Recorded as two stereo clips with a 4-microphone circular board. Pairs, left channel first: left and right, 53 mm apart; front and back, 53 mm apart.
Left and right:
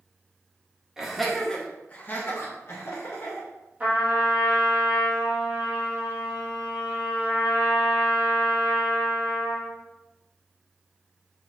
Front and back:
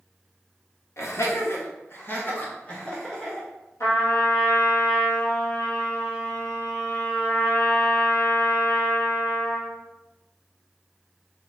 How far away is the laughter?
About 0.8 m.